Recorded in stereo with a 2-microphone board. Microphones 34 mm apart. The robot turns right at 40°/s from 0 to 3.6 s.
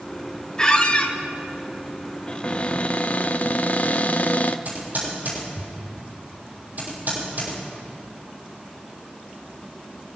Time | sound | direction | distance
0.6 | a squeak | 25° left (ahead or behind) | 1.0 m
2.3 | a cupboard door | 40° left | 0.6 m
4.7 | typing on a keyboard | 65° right (ahead or behind) | 6 m